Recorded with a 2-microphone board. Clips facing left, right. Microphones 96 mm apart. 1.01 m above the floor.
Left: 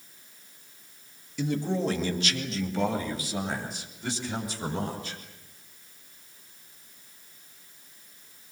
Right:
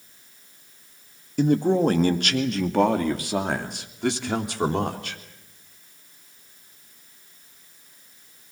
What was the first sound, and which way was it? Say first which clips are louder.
A man speaking: right 9 dB; 45° right (ahead or behind).